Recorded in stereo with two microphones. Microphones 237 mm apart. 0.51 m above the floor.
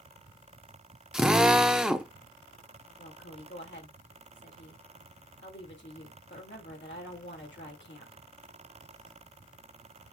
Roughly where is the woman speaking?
Left.